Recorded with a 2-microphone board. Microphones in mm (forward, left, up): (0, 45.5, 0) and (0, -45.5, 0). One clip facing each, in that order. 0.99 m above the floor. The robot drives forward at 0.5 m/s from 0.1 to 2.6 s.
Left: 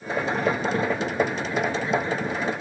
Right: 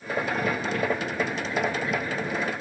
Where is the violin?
I don't hear a violin.